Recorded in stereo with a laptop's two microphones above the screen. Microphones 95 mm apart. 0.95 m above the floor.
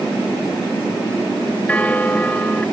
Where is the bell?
15° left (ahead or behind).